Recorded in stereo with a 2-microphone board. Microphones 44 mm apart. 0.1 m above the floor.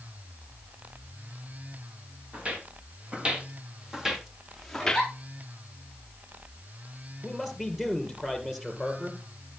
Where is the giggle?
5° right (ahead or behind), 7 m.